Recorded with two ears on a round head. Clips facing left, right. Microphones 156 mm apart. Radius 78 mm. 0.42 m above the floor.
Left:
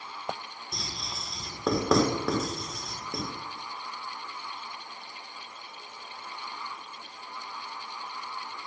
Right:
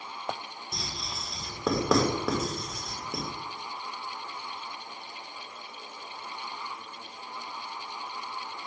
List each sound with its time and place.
0.7 s writing: centre (ahead or behind), 0.7 m